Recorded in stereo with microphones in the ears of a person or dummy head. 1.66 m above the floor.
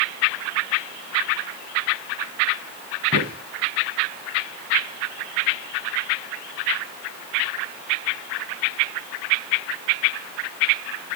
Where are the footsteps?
50° right (ahead or behind), 6.5 m.